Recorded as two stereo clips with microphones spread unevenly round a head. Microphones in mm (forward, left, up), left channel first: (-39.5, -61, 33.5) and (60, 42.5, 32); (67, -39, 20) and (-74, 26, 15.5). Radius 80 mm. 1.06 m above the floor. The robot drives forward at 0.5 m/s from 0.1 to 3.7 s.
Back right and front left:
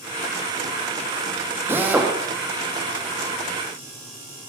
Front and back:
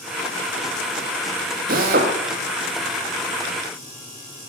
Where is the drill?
120° left, 1.9 m; by 2.1 s 125° left, 2 m.